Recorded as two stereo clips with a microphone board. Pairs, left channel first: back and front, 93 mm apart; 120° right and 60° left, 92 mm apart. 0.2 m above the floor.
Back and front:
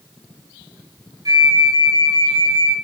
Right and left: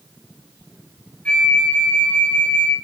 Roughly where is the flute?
Ahead right.